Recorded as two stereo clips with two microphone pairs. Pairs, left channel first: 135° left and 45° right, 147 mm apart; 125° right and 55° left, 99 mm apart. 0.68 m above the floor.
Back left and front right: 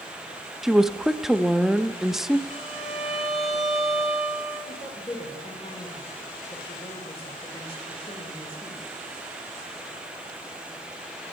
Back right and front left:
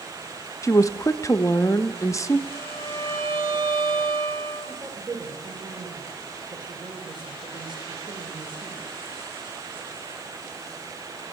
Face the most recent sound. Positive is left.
turn(degrees=85)